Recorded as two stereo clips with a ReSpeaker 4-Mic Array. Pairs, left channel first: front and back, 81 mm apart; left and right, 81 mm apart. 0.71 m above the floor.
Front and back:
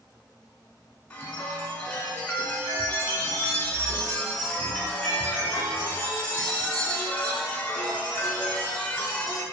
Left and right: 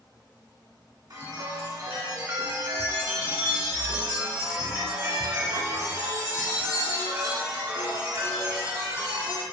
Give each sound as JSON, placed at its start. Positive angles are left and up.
{"t": 1.1, "sound": "a chime", "azimuth_deg": -60, "distance_m": 0.7}